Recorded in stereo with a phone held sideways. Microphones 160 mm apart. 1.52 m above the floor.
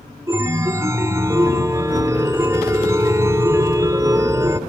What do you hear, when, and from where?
0.3 s a chime: 20° right (ahead or behind), 1.4 m